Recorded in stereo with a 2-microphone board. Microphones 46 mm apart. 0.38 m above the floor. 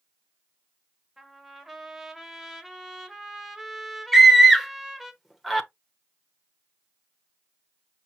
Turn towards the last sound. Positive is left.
turn(degrees=-5)  # may be behind; listen again after turning